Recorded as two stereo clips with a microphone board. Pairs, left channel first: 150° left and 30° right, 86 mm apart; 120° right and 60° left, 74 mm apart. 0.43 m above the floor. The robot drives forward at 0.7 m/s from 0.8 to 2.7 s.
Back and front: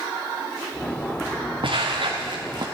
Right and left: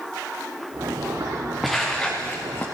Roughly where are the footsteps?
Ahead right.